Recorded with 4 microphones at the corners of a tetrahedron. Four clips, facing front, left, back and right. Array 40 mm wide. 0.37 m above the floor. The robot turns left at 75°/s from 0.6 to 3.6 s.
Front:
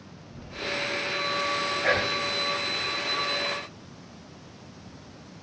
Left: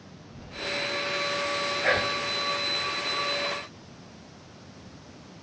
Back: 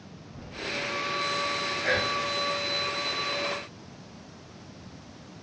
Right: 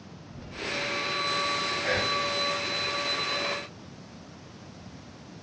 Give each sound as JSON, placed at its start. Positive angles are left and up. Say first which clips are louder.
{"t": 1.8, "sound": "whispering", "louder": "left 3 dB, front 1 dB", "azimuth_deg": 50, "distance_m": 1.7}